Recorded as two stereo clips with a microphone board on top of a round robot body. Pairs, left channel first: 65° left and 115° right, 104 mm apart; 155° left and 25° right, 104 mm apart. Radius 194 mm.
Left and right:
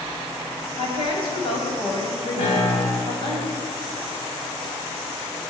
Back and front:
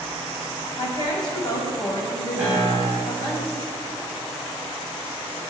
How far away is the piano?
About 7.5 m.